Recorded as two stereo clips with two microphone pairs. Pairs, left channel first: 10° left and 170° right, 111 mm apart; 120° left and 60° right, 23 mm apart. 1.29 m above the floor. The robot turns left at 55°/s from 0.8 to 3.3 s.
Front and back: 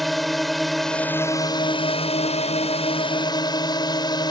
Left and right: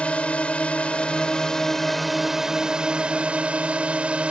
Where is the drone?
100° left; by 4.3 s 40° right.